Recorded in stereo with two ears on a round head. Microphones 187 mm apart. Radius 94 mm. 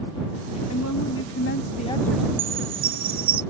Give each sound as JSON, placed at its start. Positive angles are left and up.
{"t": 0.7, "sound": "a woman speaking", "side_deg": 75}
{"t": 2.4, "sound": "a chime", "side_deg": -45}